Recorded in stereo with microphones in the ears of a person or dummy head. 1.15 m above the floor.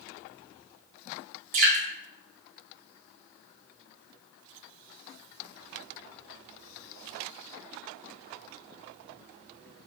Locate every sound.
1.5 s dripping: 45° right (ahead or behind), 0.9 m